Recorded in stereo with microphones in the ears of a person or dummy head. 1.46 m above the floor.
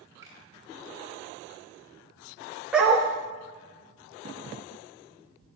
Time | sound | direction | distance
0.2 | a finger snap | 20° right (ahead or behind) | 2.5 m
2.7 | a dog barking | 10° right (ahead or behind) | 0.9 m